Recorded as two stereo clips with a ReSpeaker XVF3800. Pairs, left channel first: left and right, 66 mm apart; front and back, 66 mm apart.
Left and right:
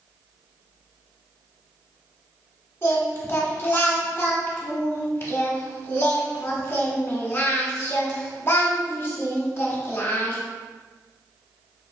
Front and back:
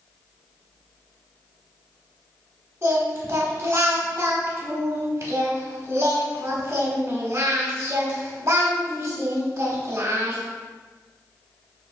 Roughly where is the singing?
Behind left.